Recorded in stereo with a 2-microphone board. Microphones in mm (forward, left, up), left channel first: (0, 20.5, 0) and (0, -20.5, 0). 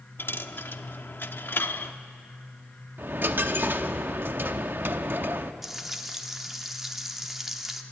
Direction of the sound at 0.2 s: 55° left (ahead or behind).